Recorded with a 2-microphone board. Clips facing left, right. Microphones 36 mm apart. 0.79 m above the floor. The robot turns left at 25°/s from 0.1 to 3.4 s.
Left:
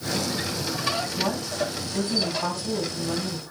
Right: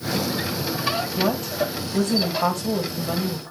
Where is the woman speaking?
80° right, 4.5 m; by 3.5 s 135° right, 4.5 m.